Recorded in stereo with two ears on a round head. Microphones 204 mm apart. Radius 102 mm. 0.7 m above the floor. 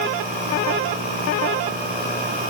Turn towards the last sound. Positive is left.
No sound to turn to.